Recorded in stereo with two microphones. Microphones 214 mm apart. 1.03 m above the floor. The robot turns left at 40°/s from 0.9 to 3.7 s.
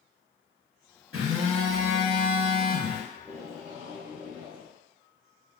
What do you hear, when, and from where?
1.1 s a phone buzzing: 105° right, 1.3 m; by 3.0 s straight behind, 1.3 m
3.1 s tape being pulled: 5° right (ahead or behind), 0.8 m; by 4.7 s 20° right (ahead or behind), 0.8 m